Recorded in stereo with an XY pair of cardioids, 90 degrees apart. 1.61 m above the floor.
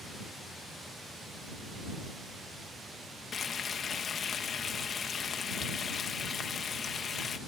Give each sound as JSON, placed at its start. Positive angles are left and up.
{"t": 3.3, "sound": "frying", "azimuth_deg": 55}